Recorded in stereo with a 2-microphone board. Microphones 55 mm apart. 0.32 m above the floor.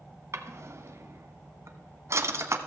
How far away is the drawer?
About 1.1 m.